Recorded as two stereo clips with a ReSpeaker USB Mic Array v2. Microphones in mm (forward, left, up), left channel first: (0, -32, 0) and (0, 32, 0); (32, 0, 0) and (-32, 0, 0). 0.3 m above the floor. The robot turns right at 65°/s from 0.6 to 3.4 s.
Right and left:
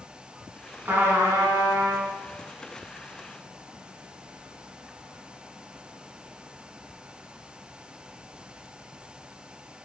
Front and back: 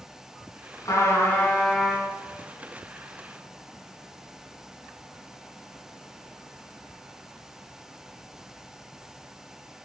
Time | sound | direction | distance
0.8 | a trumpet | 30° left | 3.5 m